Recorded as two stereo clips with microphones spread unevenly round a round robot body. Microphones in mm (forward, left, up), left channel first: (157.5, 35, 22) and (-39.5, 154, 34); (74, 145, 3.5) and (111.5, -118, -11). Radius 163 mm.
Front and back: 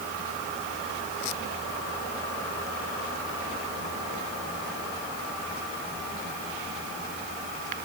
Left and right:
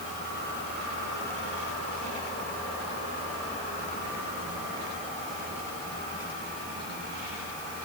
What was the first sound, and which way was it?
Only background noise.